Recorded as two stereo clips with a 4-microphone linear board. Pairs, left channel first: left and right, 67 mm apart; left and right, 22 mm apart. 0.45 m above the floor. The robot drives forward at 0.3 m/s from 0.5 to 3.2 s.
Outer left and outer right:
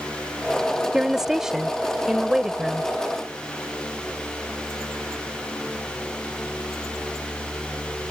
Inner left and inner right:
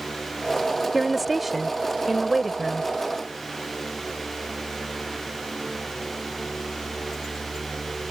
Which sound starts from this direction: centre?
A woman speaking, at 0.9 s.